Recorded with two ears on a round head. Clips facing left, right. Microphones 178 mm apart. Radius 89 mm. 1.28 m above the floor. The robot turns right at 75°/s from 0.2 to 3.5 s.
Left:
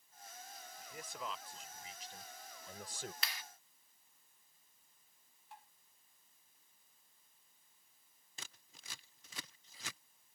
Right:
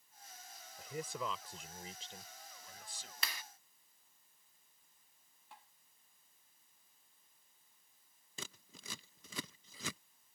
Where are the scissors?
75° right (ahead or behind).